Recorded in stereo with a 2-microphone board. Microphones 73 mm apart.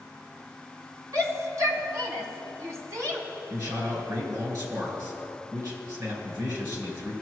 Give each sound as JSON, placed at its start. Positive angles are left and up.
{"t": 1.1, "sound": "a shout", "side_deg": -45, "distance_m": 1.8}
{"t": 3.5, "sound": "a man speaking", "side_deg": -55, "distance_m": 3.5}